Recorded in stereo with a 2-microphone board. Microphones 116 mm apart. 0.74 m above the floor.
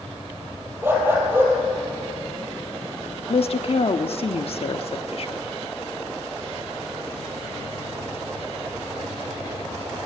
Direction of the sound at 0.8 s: 20° right (ahead or behind).